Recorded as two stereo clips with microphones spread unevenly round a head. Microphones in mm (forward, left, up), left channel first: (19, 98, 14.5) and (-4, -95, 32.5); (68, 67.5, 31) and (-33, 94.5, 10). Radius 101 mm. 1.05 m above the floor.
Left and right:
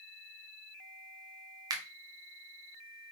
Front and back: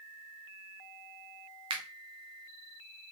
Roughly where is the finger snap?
Behind.